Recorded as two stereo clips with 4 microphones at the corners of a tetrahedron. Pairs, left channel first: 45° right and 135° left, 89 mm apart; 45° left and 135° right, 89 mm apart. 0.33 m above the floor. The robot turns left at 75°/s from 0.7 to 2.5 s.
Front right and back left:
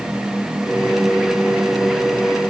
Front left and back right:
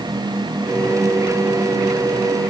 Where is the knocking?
No knocking in this recording.